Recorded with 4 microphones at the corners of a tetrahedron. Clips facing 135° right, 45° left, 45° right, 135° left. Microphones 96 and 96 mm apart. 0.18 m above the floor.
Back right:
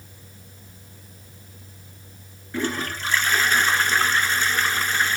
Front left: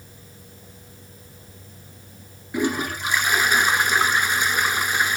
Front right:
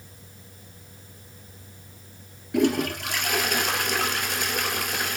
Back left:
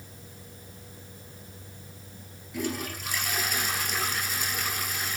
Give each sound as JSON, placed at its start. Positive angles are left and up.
{"t": 2.5, "sound": "a toilet flushing", "azimuth_deg": -30, "distance_m": 0.9}